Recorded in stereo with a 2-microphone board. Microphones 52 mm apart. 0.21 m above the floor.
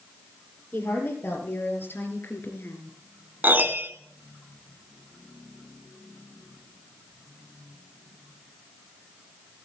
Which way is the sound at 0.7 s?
40° left (ahead or behind).